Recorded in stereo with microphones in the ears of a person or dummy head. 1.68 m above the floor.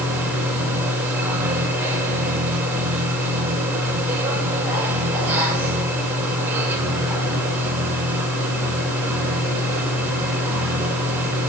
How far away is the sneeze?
No sneeze in this recording.